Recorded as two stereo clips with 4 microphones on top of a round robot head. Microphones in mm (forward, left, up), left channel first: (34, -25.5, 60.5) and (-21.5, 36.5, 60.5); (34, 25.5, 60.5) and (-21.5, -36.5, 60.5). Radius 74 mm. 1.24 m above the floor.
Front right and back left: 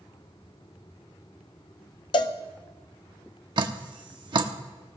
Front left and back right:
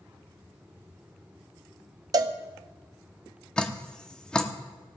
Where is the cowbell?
85° right, 0.7 m.